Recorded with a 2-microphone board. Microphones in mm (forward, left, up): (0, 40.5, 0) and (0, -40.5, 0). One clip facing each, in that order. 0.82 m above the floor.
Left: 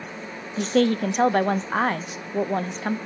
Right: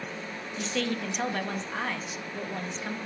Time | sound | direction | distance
0.6 | a woman speaking | 45° left (ahead or behind) | 0.6 m